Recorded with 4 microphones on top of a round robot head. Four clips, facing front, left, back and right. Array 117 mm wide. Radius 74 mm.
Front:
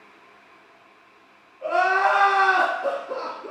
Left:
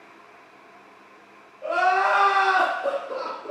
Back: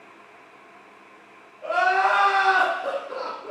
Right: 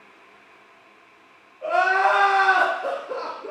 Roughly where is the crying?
Ahead right.